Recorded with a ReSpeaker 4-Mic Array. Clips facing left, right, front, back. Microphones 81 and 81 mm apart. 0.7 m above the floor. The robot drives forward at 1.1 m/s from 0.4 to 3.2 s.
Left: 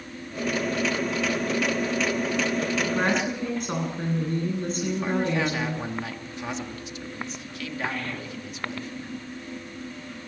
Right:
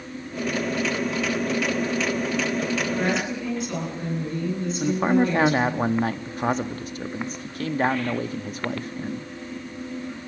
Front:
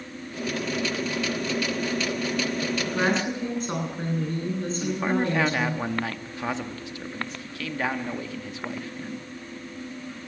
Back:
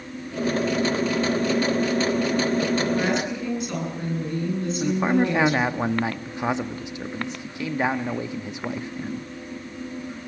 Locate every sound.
2.9 s a woman speaking: 45° left, 9.5 m; by 5.8 s 50° left, 9 m
4.8 s a man speaking: 115° right, 0.9 m